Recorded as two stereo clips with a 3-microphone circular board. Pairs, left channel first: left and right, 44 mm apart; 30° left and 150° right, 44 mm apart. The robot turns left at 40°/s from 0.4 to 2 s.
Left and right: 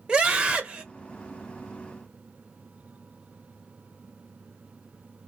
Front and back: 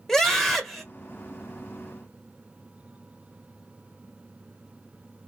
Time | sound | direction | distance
0.1 | a scream | 40° right | 1.4 m